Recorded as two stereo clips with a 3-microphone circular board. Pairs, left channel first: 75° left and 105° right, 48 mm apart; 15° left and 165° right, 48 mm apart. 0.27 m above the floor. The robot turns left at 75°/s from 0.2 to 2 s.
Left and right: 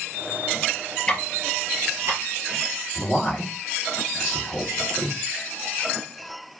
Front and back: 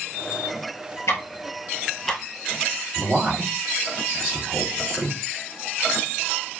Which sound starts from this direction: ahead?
Ticking, at 1.1 s.